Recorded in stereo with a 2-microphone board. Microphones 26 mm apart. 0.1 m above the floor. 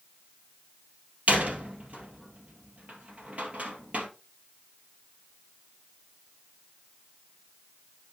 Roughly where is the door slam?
Right.